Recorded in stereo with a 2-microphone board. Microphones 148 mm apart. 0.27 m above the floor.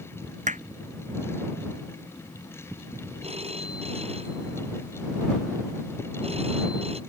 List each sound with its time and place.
0.5 s hammering: 55° right (ahead or behind)
3.2 s a phone ringing: 45° right (ahead or behind)